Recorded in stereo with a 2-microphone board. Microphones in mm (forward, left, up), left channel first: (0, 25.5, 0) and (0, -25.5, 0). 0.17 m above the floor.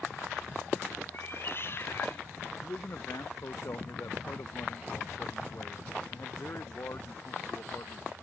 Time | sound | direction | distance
1.1 | a cat meowing | 45° left (ahead or behind) | ?
2.6 | a man speaking | 55° left (ahead or behind) | ?